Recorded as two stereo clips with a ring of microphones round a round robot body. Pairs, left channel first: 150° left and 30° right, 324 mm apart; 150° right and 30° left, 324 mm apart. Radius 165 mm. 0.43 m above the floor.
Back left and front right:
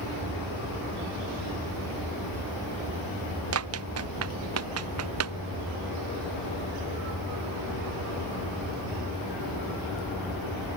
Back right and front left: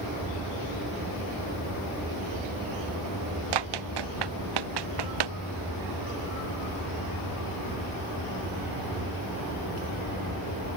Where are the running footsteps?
20° left; by 5.4 s 15° left.